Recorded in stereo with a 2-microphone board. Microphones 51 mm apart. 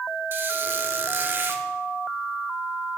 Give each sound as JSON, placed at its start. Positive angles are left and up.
{"t": 0.3, "sound": "a squeak", "side_deg": -45, "distance_m": 0.7}